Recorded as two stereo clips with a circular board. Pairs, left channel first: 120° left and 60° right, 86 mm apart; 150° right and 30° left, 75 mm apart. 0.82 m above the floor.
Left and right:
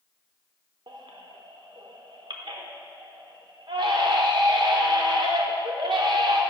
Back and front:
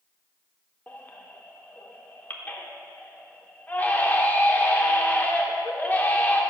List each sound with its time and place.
0.9 s a baby crying: 85° right, 0.8 m